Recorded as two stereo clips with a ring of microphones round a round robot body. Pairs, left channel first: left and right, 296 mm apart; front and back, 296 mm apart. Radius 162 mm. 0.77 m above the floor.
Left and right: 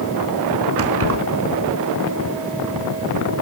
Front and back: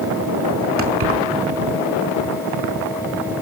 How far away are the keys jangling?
About 5 m.